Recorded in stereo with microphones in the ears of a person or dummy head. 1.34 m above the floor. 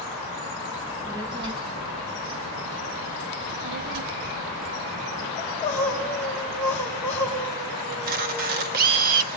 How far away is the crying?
About 6.5 m.